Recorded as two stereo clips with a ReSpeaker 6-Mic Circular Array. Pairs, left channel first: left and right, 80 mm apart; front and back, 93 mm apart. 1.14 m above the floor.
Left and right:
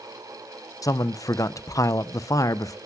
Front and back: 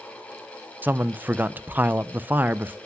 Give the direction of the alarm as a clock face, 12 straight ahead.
No alarm in this recording.